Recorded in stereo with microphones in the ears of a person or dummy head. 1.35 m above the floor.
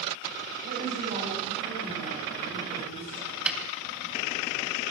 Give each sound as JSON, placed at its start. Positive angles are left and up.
{"t": 0.6, "sound": "a woman speaking", "side_deg": -40, "distance_m": 9.5}
{"t": 3.5, "sound": "a snare drum", "side_deg": -5, "distance_m": 3.0}